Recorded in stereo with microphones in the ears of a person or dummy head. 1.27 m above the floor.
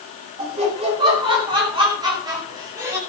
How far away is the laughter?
About 6 m.